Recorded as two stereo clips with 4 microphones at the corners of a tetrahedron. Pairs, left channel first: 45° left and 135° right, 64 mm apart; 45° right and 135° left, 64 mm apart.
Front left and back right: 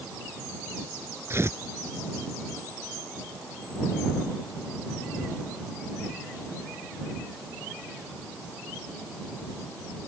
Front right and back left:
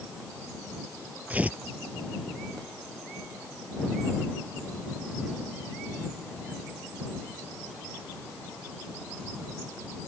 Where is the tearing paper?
165° right.